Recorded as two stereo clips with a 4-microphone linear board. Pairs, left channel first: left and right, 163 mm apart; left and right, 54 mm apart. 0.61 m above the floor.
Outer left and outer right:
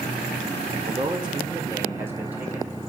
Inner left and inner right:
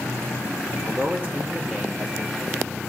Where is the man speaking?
35° right (ahead or behind), 2.0 m; by 2.8 s 5° right (ahead or behind), 3 m.